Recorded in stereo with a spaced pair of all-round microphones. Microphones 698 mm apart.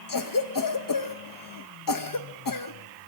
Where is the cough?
30° left (ahead or behind), 0.6 m.